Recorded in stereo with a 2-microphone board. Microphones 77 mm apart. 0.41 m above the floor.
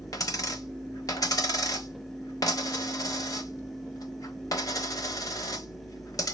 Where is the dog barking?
No dog barking in this recording.